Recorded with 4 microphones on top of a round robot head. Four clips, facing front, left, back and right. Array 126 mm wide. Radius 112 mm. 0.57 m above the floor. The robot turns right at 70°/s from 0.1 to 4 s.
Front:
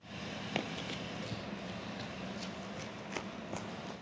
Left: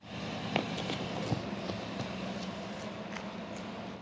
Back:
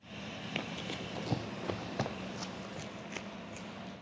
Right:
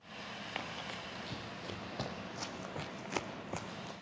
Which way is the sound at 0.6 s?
70° left.